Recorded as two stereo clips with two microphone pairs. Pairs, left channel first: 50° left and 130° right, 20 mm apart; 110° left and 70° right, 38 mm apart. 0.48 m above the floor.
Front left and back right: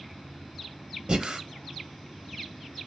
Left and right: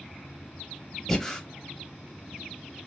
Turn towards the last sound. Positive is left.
turn(degrees=-170)